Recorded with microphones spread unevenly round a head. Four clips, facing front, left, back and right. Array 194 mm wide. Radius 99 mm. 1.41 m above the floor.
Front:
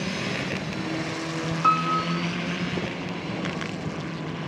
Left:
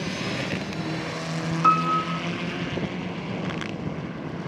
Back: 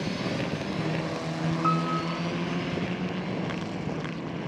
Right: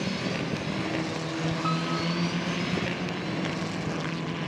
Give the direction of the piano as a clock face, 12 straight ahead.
10 o'clock.